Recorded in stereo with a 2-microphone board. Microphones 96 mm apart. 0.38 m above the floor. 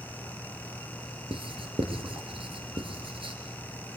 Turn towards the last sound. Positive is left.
turn(degrees=-70)  # may be behind; listen again after turning